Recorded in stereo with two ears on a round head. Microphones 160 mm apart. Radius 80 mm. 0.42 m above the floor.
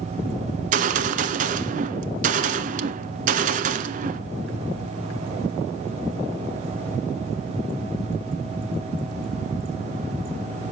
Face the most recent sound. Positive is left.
turn(degrees=-45)  # may be behind; listen again after turning